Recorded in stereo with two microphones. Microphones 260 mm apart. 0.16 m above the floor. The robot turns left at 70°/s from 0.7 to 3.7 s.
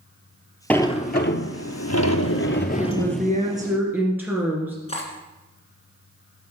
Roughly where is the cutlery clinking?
Left.